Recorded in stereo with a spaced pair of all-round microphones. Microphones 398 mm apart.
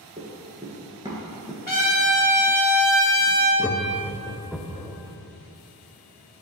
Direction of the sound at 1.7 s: 50° left (ahead or behind).